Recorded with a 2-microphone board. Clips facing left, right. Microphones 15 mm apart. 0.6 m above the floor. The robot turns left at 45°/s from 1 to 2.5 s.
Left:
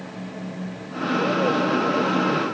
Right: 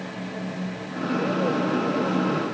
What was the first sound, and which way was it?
Only background noise.